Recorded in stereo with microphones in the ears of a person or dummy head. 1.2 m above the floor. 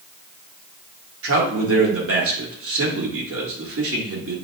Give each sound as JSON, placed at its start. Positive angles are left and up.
{"t": 1.2, "sound": "a man speaking", "side_deg": -65, "distance_m": 1.2}